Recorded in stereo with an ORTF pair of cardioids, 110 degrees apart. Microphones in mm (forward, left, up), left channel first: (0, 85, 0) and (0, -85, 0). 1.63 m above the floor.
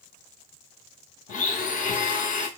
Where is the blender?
50° left, 0.7 m.